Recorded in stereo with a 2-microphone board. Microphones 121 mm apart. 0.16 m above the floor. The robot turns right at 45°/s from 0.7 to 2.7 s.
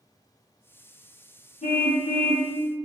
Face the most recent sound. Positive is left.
turn(degrees=125)